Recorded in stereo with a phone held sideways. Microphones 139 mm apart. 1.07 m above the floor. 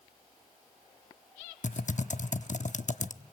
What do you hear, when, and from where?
1.6 s typing on a keyboard: 60° left (ahead or behind), 0.9 m